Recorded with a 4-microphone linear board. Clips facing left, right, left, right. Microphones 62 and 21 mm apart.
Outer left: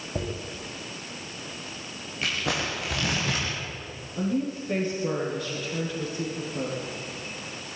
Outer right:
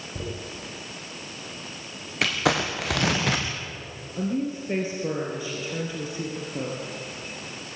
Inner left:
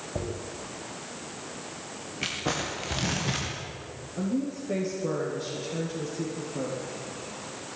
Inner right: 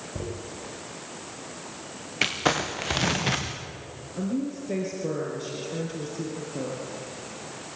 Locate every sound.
0.1 s a dropped coin: 50° left (ahead or behind), 5.5 m
2.2 s crumpling: 75° right (ahead or behind), 4 m
4.2 s a woman speaking: 15° right (ahead or behind), 5 m